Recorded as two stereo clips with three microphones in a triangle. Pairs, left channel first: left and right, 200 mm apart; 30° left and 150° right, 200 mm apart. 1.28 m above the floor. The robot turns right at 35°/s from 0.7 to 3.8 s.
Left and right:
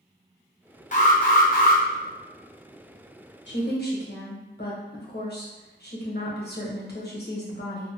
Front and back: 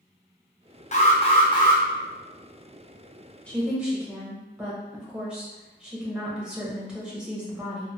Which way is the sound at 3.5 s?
115° left.